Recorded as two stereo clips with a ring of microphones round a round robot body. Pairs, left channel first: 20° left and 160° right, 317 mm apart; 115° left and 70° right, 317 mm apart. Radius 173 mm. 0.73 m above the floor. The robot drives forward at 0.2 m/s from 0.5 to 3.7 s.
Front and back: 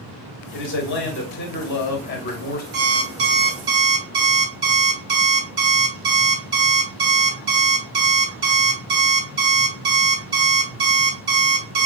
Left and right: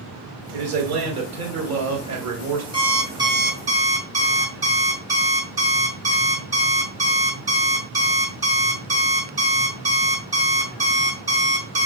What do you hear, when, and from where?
0.5 s a man speaking: 30° right, 2 m; by 2.6 s 35° right, 1.9 m
2.7 s an alarm clock: 145° right, 1.4 m; by 11.9 s 150° right, 1.6 m